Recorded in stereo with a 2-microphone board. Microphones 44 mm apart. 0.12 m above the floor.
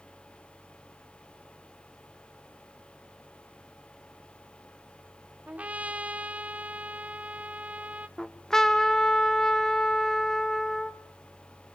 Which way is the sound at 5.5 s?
35° right (ahead or behind).